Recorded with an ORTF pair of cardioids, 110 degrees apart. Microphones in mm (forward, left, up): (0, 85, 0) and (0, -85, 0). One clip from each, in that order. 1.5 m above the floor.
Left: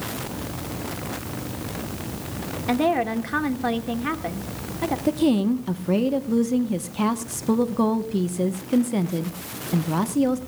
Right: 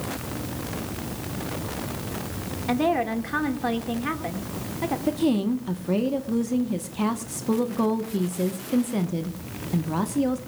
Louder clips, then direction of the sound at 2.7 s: Left 2 dB; 10° left.